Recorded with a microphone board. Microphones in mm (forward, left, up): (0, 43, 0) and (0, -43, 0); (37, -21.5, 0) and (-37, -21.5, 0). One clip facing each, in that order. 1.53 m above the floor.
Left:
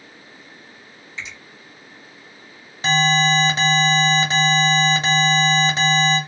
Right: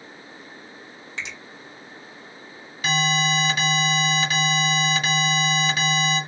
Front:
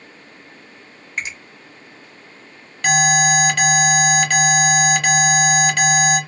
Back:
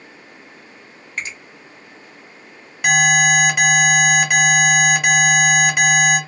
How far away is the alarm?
About 1.0 m.